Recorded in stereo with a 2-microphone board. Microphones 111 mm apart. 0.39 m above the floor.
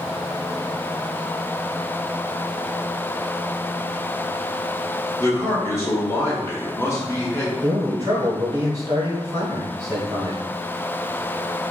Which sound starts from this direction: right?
A man speaking, at 7.6 s.